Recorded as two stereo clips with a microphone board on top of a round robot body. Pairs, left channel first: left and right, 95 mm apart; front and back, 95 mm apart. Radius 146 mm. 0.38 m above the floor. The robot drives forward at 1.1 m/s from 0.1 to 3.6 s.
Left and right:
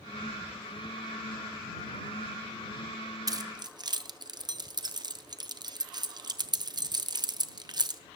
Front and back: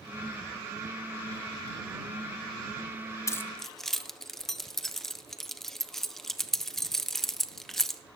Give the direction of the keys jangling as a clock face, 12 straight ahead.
2 o'clock.